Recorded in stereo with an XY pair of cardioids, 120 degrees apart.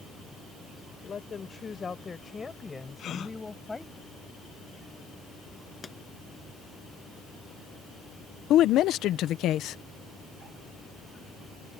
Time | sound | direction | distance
1.0 | a woman speaking | 35° left | ?
3.0 | a gasp | 50° left | ?
5.8 | a pop | 20° left | ?
8.5 | a woman speaking | 70° left | ?